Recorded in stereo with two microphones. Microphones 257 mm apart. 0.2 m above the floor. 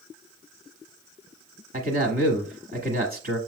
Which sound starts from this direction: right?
A man speaking, at 1.7 s.